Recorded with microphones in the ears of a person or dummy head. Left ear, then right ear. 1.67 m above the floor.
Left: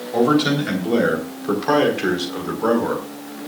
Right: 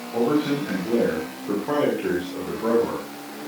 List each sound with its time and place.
0.1 s a man speaking: 65° left (ahead or behind), 4 m; by 3.0 s 55° left (ahead or behind), 5.5 m